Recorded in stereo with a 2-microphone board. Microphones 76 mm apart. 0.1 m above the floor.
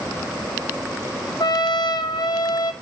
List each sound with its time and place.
1.4 s a trumpet: 65° left (ahead or behind), 0.8 m